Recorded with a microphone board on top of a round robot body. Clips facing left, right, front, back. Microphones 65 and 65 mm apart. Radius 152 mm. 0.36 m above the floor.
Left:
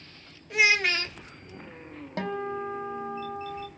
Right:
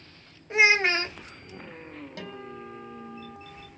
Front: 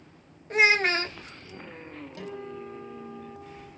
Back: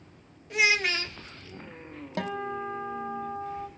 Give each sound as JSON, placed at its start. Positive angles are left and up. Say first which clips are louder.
{"t": 0.5, "sound": "a child speaking", "louder": "right 2 dB, front 4 dB", "azimuth_deg": -35, "distance_m": 0.8}
{"t": 2.2, "sound": "a guitar", "louder": "left 12 dB, back 8 dB", "azimuth_deg": 145, "distance_m": 1.2}